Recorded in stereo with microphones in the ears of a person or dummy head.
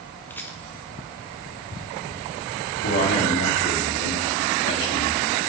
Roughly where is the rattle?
Centre.